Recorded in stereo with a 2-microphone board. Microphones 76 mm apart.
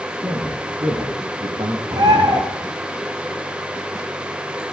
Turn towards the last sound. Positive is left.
turn(degrees=-60)  # may be behind; listen again after turning